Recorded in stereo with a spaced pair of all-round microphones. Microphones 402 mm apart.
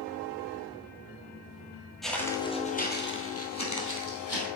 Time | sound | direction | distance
2.0 | footsteps | centre (ahead or behind) | 1.4 m